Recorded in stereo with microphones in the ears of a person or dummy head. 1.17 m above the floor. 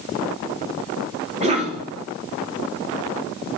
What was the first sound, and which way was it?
A cough, 35° right (ahead or behind).